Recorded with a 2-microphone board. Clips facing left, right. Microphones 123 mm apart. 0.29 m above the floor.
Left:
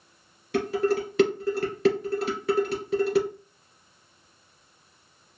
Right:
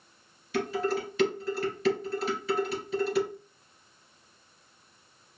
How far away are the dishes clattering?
About 2 m.